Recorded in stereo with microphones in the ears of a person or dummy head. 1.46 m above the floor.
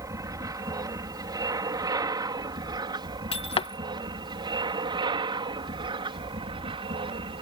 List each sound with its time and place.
0.0 s an aircraft: 20° right (ahead or behind); by 7.4 s 30° right (ahead or behind)
3.3 s breaking glass: 25° left (ahead or behind)